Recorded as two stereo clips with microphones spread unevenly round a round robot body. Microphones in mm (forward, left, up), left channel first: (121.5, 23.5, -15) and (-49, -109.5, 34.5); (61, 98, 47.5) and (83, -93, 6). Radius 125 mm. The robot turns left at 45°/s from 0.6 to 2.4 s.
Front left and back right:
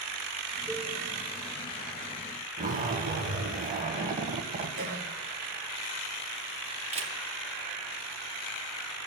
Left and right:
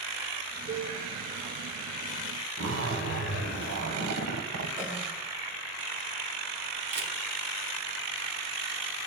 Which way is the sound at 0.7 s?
35° right.